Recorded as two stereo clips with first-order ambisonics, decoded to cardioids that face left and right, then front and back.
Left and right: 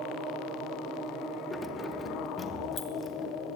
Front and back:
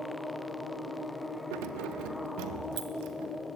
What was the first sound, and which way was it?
Keys jangling, 170° left.